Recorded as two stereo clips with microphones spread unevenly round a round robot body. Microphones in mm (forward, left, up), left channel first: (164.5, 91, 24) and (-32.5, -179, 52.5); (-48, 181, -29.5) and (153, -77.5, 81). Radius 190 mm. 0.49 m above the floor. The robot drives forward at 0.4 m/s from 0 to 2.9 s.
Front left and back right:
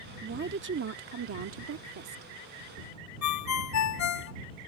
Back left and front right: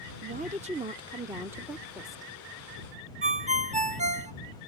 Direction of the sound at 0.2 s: 125° right.